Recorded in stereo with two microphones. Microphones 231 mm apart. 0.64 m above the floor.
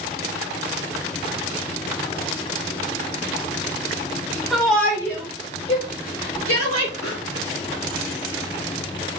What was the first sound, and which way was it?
A shout, centre (ahead or behind).